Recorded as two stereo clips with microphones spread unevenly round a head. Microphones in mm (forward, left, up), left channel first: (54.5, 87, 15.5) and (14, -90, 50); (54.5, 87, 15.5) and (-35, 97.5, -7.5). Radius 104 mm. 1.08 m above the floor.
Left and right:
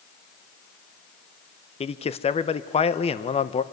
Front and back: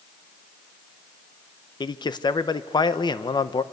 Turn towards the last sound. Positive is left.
turn(degrees=35)